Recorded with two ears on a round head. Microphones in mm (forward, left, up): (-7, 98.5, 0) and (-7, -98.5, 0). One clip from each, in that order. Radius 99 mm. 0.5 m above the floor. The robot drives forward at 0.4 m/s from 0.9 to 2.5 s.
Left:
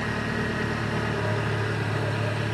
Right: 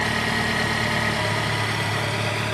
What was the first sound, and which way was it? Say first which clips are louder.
An engine running: right 6 dB; 80° right.